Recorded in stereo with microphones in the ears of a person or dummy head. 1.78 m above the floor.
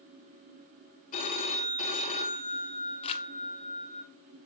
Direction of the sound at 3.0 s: 40° left (ahead or behind).